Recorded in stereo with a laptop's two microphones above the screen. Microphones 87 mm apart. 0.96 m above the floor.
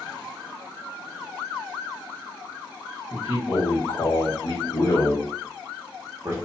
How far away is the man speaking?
About 1.8 m.